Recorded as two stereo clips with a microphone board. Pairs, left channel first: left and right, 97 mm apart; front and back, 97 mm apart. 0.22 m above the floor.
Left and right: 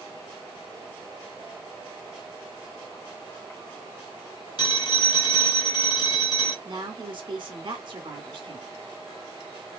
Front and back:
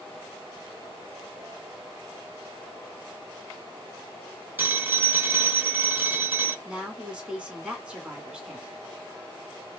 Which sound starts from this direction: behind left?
A phone ringing, at 4.6 s.